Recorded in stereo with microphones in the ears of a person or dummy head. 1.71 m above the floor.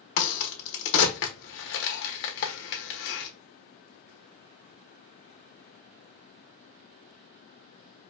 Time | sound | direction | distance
0.2 | a crack | 65° left (ahead or behind) | 1.3 m